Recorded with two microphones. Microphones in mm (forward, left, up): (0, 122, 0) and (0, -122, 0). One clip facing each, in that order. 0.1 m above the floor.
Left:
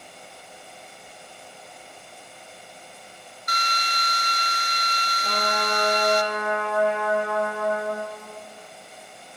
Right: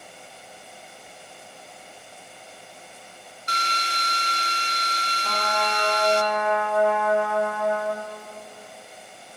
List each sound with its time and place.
3.5 s a drill: 30° right (ahead or behind), 0.6 m
5.2 s a trumpet: 20° left (ahead or behind), 4 m